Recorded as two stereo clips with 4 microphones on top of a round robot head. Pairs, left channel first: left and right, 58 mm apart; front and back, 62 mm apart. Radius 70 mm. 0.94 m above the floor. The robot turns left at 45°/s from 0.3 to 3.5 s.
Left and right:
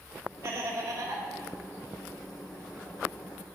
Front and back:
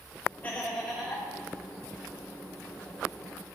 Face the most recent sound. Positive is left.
turn(degrees=160)